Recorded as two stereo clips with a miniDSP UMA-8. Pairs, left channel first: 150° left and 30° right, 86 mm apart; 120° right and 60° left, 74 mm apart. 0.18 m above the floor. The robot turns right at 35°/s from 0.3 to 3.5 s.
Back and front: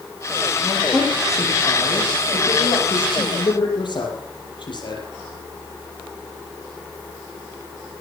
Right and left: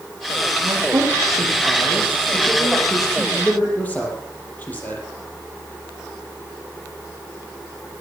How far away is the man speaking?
About 5.5 m.